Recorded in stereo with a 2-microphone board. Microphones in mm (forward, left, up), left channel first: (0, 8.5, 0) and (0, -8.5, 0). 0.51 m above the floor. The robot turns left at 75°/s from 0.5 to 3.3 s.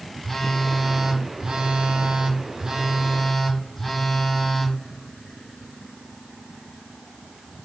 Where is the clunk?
No clunk in this recording.